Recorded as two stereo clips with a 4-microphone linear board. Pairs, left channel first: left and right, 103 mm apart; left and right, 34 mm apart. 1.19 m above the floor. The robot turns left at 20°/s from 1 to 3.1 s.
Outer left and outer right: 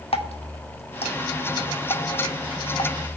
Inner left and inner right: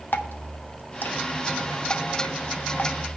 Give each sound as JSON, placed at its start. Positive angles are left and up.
{"t": 0.1, "sound": "dripping", "side_deg": 75, "distance_m": 0.9}